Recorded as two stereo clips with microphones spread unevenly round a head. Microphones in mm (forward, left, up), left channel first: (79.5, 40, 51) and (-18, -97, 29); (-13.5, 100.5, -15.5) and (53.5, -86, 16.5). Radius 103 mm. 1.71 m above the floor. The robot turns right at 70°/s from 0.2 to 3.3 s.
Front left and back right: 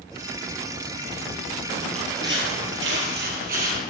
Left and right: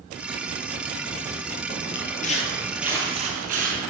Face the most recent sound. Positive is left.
turn(degrees=-95)